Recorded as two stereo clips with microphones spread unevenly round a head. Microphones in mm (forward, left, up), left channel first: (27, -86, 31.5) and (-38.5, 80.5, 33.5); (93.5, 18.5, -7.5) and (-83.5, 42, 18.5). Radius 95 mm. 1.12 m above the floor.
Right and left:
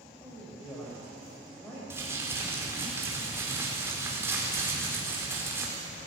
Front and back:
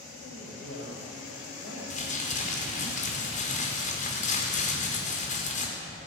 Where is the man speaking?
15° left, 5 m.